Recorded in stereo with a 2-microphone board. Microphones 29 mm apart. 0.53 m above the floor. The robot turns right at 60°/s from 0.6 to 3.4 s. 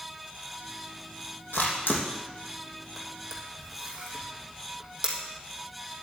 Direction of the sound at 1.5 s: 85° left.